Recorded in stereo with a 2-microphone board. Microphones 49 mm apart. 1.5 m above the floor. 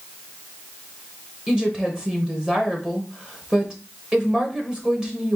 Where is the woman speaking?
15° right (ahead or behind), 1.1 m.